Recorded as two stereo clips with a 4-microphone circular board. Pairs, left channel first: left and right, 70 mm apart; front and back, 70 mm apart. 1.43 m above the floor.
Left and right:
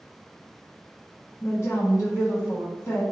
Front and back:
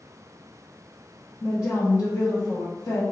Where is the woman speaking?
45° left, 1.1 m.